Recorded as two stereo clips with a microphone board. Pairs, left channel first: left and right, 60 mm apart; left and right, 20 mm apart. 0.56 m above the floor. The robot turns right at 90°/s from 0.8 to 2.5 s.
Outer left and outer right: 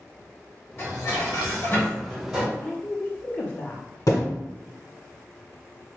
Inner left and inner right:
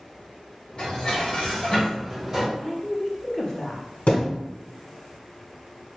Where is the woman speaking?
30° left (ahead or behind), 0.8 m.